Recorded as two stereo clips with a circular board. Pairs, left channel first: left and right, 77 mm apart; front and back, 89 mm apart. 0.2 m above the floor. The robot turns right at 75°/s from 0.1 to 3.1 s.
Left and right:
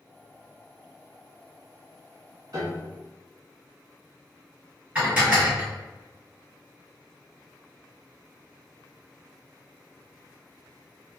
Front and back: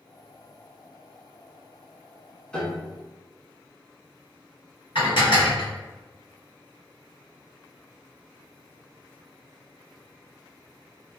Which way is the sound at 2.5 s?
75° right.